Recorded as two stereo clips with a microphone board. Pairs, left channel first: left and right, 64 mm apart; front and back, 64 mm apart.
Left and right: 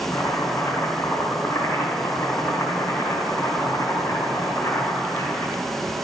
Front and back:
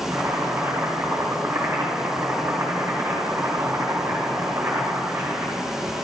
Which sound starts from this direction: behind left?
Chopping, at 0.1 s.